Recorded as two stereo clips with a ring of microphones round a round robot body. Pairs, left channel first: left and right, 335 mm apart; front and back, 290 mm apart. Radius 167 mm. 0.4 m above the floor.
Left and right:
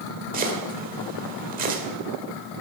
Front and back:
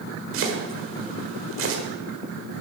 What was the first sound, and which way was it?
Chopping, 150° right.